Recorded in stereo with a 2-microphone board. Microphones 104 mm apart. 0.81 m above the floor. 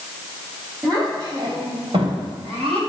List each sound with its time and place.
0.8 s a child speaking: 40° right (ahead or behind), 3.5 m; by 2.8 s 85° right, 2.5 m